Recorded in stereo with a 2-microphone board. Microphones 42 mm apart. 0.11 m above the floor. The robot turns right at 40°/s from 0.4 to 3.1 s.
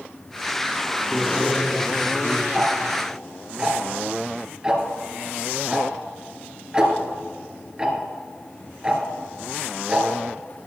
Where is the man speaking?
5° right, 4.5 m; by 2.4 s 50° left, 4.5 m.